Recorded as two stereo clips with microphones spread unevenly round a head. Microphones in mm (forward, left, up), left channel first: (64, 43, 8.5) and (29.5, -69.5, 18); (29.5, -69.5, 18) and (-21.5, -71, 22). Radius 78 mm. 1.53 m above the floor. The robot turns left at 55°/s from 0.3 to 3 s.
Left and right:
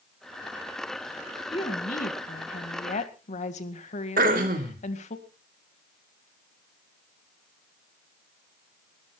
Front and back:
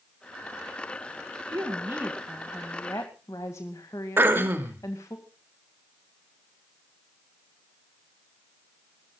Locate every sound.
1.5 s a woman speaking: 135° left, 2 m; by 5.2 s 55° left, 2 m
4.2 s throat clearing: 135° right, 2.5 m